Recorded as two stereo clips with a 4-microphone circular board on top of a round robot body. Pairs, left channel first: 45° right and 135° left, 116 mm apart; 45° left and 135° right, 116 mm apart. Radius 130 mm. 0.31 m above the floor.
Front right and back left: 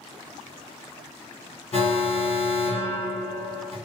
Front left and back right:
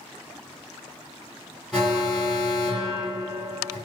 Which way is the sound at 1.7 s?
50° right.